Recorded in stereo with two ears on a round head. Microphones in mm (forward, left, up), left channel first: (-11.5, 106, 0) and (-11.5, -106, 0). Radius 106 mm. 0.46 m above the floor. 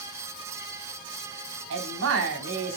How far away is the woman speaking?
About 3 m.